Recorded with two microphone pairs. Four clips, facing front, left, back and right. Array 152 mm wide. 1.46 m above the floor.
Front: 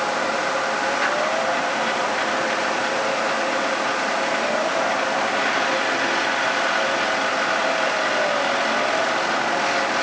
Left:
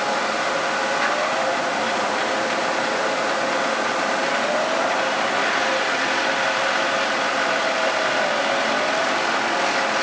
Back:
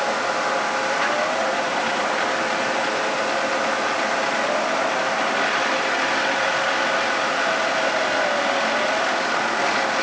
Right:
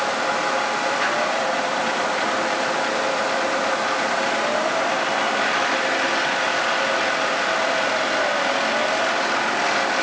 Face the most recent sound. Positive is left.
No sound to turn to.